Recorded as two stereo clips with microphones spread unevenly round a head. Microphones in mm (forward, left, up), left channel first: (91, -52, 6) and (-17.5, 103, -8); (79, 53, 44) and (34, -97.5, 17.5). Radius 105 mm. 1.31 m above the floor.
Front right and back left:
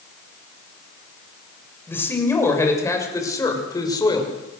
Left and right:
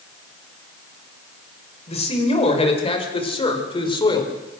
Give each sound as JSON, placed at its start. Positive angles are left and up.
{"t": 1.9, "sound": "a man speaking", "azimuth_deg": 25, "distance_m": 6.0}